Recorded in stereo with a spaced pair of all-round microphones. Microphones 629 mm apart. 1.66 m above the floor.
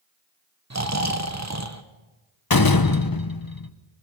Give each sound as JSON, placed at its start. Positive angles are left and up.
{"t": 0.7, "sound": "snoring", "side_deg": -25, "distance_m": 1.2}
{"t": 2.5, "sound": "a door slam", "side_deg": 30, "distance_m": 0.9}